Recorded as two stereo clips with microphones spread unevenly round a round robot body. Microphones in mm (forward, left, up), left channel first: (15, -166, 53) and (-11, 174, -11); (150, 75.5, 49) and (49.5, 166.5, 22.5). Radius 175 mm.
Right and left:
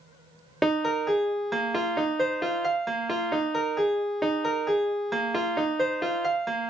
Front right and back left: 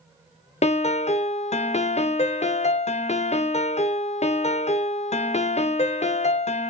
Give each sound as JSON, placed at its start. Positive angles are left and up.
{"t": 0.6, "sound": "a piano", "azimuth_deg": 5, "distance_m": 0.7}